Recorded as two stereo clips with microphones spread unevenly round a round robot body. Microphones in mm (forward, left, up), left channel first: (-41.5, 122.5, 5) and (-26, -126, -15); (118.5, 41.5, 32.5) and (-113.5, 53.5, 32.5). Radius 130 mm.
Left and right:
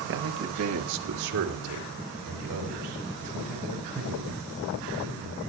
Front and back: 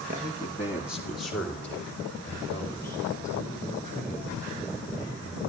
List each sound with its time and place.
0.1 s a man speaking: 125° right, 1.1 m; by 5.4 s 80° right, 8.5 m